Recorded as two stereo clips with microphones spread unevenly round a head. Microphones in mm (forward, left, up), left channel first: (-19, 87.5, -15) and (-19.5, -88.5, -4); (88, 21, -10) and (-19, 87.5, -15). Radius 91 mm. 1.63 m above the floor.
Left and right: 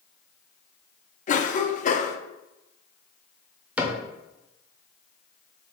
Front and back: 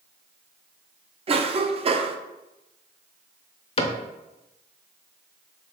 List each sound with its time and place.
1.3 s a cough: 125° left, 0.6 m
3.8 s a cupboard door: 10° right, 0.6 m